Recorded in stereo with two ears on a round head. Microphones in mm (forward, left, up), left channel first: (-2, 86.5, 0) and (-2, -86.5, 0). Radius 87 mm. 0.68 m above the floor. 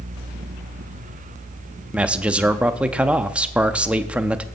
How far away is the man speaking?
About 0.6 m.